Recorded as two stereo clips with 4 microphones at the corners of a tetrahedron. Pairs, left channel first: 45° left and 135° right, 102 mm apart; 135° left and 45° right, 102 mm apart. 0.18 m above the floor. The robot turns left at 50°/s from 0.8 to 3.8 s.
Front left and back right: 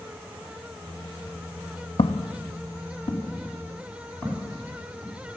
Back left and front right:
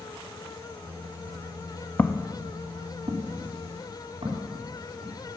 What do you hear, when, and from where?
2.0 s footsteps: 60° left, 0.6 m; by 5.1 s 30° right, 5 m